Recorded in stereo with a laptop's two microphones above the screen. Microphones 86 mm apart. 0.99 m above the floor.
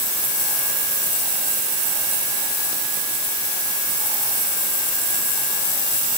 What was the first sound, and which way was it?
Only background noise.